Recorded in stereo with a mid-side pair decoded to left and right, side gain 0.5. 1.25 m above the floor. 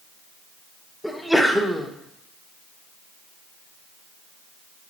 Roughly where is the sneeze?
Ahead.